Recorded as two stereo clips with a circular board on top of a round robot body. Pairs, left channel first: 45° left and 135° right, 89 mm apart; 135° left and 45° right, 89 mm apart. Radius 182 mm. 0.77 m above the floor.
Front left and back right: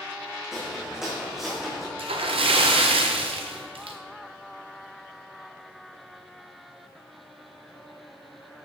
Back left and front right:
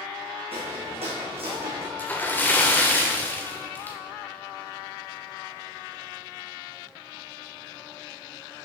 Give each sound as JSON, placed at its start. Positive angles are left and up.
{"t": 0.5, "sound": "footsteps", "azimuth_deg": -50, "distance_m": 3.5}
{"t": 2.0, "sound": "a splash", "azimuth_deg": -155, "distance_m": 1.4}